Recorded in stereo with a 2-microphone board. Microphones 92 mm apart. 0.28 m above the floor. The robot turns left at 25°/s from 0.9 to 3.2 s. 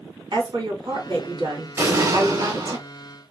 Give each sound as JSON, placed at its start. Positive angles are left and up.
{"t": 0.3, "sound": "a woman speaking", "azimuth_deg": -65, "distance_m": 2.5}
{"t": 1.8, "sound": "an explosion", "side_deg": -30, "distance_m": 3.0}